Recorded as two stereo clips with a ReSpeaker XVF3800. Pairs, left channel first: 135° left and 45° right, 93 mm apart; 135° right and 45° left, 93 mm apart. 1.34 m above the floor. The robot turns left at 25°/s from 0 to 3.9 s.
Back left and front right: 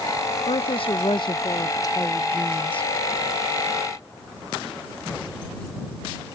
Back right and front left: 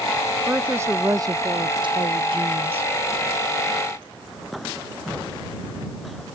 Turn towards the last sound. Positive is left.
turn(degrees=30)